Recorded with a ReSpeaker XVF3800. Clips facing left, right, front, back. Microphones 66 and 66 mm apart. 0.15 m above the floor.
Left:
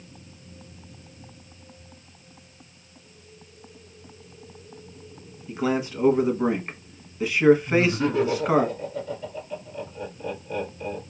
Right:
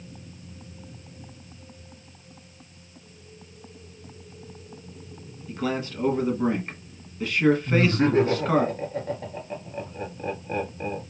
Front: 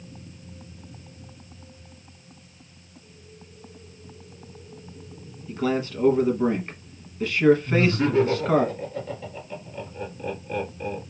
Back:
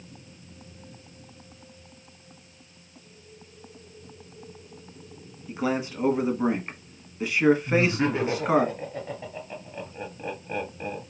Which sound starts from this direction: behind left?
A man speaking, at 5.5 s.